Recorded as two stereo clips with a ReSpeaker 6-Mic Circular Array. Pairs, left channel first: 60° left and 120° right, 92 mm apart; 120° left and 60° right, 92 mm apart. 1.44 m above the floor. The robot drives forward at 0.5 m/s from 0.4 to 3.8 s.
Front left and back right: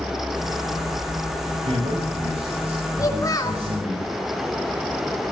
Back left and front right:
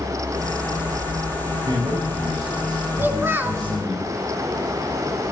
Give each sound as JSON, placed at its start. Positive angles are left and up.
{"t": 1.6, "sound": "a man speaking", "azimuth_deg": -110, "distance_m": 8.0}
{"t": 3.0, "sound": "a child speaking", "azimuth_deg": 10, "distance_m": 3.5}